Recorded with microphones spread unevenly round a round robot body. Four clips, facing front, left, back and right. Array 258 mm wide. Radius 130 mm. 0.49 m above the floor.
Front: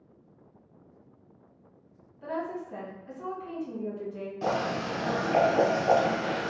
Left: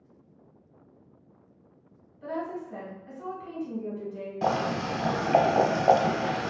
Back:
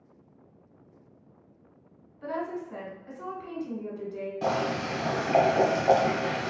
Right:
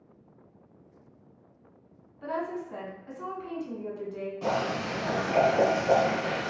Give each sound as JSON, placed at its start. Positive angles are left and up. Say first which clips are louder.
{"t": 2.2, "sound": "a woman speaking", "louder": "right 1 dB, back 1 dB", "azimuth_deg": -120, "distance_m": 1.7}
{"t": 4.4, "sound": "boiling", "louder": "left 3 dB, back 1 dB", "azimuth_deg": 95, "distance_m": 0.8}